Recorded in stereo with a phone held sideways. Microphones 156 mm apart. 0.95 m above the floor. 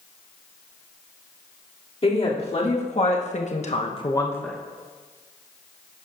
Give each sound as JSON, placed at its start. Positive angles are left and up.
{"t": 2.0, "sound": "a woman speaking", "side_deg": 40, "distance_m": 3.0}